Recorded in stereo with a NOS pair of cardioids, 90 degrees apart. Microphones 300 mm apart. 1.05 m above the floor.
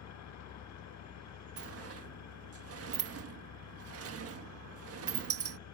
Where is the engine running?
65° left.